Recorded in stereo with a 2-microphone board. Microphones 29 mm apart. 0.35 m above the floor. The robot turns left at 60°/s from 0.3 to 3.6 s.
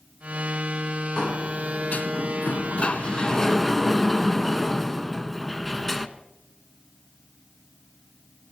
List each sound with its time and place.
1.2 s a sliding door: 150° left, 0.5 m; by 6.1 s 5° left, 0.5 m